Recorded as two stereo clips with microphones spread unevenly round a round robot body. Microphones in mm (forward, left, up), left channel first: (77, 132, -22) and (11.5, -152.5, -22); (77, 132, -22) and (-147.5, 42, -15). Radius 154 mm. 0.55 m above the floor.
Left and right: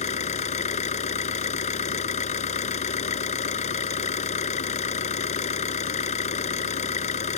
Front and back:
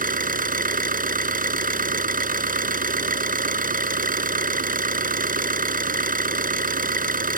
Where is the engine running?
145° left.